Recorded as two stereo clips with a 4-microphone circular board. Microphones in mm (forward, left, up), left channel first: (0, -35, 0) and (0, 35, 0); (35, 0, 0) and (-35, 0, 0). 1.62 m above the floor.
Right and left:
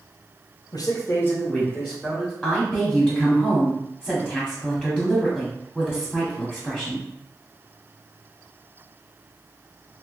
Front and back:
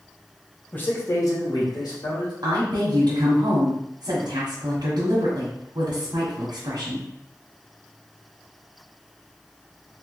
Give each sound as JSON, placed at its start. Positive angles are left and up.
{"t": 0.7, "sound": "a man speaking", "azimuth_deg": -70, "distance_m": 0.8}
{"t": 2.4, "sound": "a woman speaking", "azimuth_deg": 175, "distance_m": 1.0}